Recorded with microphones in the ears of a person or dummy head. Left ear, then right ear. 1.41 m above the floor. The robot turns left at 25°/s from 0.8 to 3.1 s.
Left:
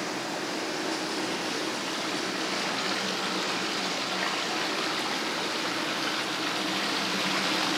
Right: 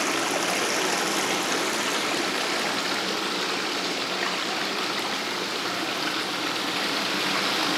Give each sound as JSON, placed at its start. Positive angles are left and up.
{"t": 0.0, "sound": "running water", "azimuth_deg": -120, "distance_m": 1.1}